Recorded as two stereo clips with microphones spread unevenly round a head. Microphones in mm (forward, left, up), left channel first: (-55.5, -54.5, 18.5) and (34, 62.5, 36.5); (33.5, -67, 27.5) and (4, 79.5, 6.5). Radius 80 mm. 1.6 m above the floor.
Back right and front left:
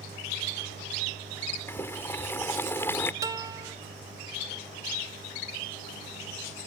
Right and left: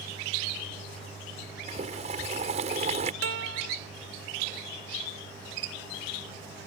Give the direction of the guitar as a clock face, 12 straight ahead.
8 o'clock.